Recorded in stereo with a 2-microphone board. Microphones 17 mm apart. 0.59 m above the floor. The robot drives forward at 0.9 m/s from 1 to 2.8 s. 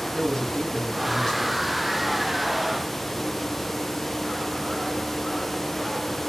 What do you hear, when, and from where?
0.1 s a man speaking: 30° left (ahead or behind), 4 m; by 1.7 s 25° left (ahead or behind), 4.5 m